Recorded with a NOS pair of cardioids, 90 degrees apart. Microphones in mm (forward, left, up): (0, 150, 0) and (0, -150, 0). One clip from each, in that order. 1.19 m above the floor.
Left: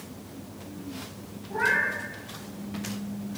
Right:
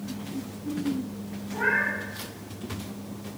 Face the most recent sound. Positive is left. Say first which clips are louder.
# even
turn(degrees=45)